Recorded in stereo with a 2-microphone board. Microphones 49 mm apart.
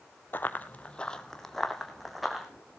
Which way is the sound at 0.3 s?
40° left (ahead or behind).